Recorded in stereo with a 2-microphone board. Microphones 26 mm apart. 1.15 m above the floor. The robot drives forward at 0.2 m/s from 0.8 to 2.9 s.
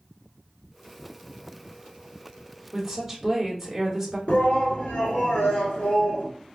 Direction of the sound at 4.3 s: 70° left (ahead or behind).